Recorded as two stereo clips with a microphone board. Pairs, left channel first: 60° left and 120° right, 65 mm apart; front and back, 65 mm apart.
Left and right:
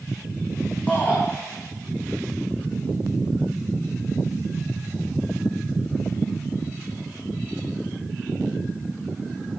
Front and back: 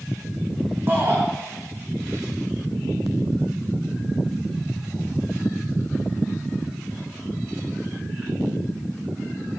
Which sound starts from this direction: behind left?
A shout, at 0.9 s.